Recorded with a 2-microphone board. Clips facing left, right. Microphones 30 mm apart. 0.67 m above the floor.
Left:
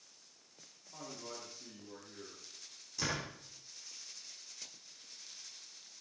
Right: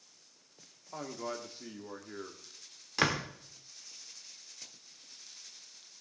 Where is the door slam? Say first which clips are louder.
Right 8 dB; 70° right (ahead or behind), 1.4 m.